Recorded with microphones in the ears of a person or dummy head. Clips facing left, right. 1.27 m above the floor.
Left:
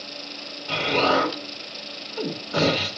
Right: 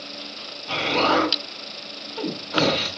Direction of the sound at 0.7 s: 15° left (ahead or behind).